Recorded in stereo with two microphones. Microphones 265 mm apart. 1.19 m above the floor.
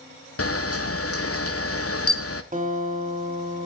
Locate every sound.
0.4 s a camera shutter: 60° left (ahead or behind), 0.6 m
2.5 s a guitar: 30° right (ahead or behind), 1.9 m